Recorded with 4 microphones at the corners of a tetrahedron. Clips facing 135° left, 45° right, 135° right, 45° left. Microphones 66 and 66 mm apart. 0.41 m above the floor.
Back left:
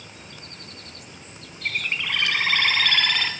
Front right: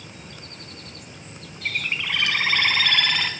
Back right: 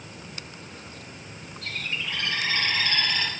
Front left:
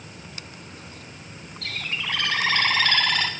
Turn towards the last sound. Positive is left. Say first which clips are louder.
# even, front left 2 dB
turn(degrees=45)